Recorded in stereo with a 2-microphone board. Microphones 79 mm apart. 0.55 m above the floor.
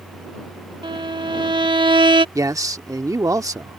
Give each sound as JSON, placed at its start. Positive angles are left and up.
{"t": 0.8, "sound": "a violin", "side_deg": -80}
{"t": 2.4, "sound": "a man speaking", "side_deg": -45}